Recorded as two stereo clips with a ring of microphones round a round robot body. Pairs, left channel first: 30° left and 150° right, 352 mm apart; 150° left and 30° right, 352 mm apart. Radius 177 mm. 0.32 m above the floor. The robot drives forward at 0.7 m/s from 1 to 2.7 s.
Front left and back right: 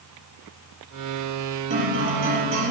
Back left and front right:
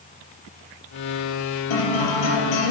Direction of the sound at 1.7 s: 150° left.